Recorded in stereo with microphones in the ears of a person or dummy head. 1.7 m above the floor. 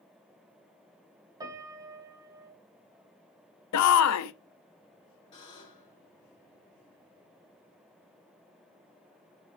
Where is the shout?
80° left, 0.7 m.